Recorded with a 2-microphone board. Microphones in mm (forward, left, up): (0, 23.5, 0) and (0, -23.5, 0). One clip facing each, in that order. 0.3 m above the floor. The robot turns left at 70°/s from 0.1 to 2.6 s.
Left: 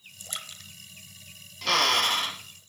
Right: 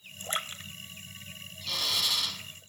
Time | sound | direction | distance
0.2 | a splash | 40° right (ahead or behind) | 1.1 m
1.6 | a drill | 85° left | 1.0 m